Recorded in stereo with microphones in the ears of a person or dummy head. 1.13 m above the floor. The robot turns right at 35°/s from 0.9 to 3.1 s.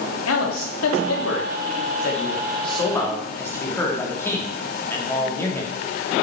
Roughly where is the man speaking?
Left.